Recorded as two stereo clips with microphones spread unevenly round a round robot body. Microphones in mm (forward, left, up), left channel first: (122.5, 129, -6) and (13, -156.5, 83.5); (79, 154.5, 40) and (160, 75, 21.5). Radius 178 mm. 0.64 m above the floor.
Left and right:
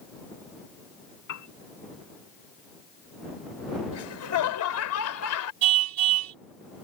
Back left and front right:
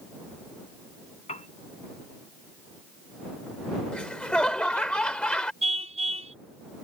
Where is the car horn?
105° right.